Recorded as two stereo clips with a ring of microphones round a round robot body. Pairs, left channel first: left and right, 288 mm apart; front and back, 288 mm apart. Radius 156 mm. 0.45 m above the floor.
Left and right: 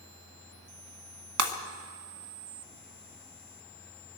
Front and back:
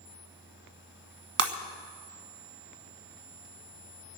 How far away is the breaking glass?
About 1.4 m.